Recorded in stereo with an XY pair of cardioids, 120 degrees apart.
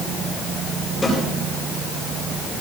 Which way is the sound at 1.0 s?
20° left.